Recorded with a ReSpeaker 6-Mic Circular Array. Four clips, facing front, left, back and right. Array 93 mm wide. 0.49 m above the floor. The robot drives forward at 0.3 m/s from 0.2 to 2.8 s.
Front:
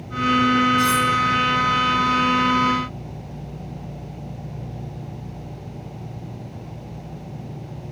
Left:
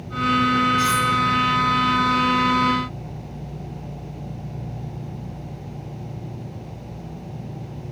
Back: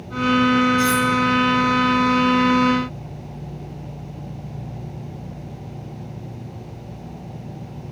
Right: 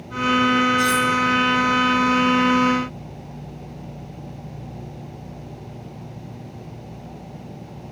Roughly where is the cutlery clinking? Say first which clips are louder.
Right 1 dB, even; ahead left.